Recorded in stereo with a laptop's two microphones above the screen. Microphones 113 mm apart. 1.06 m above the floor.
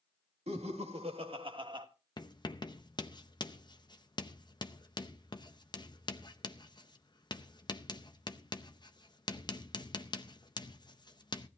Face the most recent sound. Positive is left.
turn(degrees=40)  # may be behind; listen again after turning